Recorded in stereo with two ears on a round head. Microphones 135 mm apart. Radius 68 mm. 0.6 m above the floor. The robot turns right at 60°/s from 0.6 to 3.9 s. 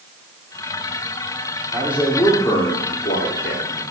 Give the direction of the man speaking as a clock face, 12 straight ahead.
1 o'clock.